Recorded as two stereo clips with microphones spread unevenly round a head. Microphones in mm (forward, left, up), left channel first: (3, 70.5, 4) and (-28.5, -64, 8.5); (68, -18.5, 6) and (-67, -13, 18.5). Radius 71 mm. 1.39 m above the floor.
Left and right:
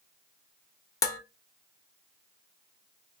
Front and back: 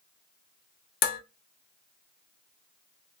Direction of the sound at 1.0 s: 10° left.